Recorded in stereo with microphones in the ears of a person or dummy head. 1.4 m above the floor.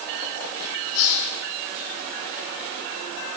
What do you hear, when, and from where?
0.9 s a hiss: 70° left (ahead or behind), 3.5 m